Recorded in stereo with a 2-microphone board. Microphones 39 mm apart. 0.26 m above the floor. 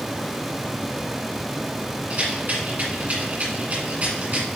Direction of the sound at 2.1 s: 45° right (ahead or behind).